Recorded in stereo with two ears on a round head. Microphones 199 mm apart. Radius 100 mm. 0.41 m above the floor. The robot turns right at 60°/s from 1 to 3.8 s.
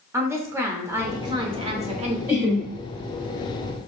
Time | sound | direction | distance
0.1 | a woman speaking | 15° right (ahead or behind) | 1.0 m
2.3 | laughter | 10° right (ahead or behind) | 1.5 m